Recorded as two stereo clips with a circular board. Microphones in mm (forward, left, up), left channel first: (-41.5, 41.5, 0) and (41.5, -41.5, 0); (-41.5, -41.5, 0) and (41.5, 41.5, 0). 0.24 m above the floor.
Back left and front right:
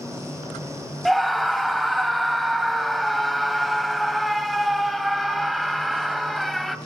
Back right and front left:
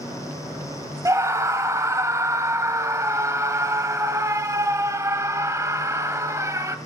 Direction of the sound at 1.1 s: 45° left.